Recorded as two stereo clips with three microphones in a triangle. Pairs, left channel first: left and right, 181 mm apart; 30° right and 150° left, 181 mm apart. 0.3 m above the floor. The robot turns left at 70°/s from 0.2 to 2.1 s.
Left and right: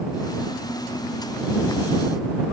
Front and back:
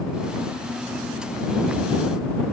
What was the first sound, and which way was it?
Only background noise.